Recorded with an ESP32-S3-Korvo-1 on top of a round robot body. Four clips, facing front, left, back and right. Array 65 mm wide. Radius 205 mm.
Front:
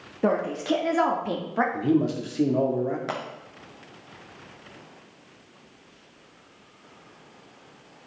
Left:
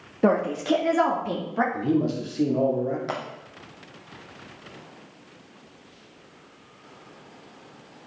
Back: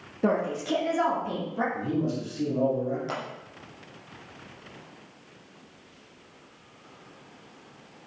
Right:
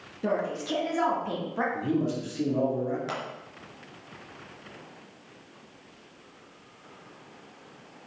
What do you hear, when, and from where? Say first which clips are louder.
0.2 s a woman speaking: left 7 dB, front 2 dB; 70° left, 1.8 m; by 1.6 s 15° left, 2.5 m
1.7 s a man speaking: left 4 dB, front 5 dB; 15° left, 2 m
3.1 s a pop: left 3 dB, front 2 dB; 10° left, 2.5 m